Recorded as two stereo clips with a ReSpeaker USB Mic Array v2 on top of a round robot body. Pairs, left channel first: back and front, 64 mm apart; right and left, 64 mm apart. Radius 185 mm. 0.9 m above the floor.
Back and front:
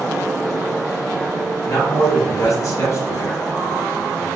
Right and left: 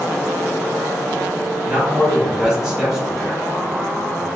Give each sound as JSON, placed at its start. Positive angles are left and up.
{"t": 1.7, "sound": "a man speaking", "azimuth_deg": 160, "distance_m": 1.7}